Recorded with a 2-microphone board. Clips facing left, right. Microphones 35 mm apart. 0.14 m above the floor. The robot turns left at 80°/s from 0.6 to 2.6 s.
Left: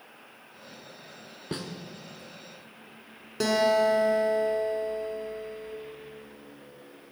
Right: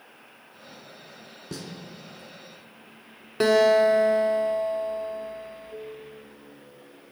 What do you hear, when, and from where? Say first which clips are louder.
1.5 s a snare drum: left 3 dB; 45° left (ahead or behind), 0.8 m
3.4 s a guitar: right 5 dB; 30° right (ahead or behind), 0.8 m